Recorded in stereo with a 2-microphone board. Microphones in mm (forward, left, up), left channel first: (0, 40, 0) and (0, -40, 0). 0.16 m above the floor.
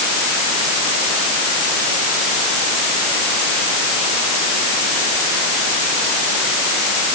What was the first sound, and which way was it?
Only background noise.